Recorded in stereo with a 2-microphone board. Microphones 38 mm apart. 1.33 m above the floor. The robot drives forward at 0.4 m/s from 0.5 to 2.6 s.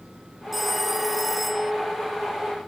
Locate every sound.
0.5 s a phone ringing: 5° right (ahead or behind)